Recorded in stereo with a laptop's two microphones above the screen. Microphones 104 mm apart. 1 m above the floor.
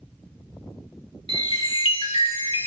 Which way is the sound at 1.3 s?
55° left (ahead or behind).